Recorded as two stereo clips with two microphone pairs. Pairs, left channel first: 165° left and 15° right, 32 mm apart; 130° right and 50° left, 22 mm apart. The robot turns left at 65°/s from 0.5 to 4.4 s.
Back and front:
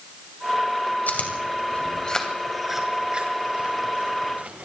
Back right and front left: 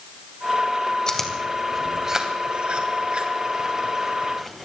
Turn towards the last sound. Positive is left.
turn(degrees=-45)